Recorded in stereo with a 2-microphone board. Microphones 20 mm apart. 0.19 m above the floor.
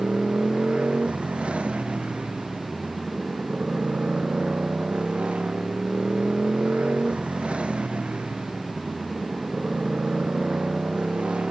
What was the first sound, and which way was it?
A motorcycle, 70° right (ahead or behind).